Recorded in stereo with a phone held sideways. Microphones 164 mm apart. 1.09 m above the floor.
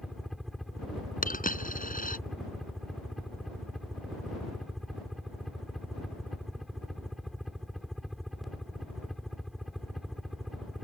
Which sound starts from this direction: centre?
A helicopter, at 0.0 s.